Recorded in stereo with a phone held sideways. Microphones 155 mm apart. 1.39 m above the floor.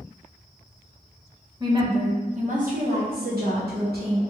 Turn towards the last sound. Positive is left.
turn(degrees=-85)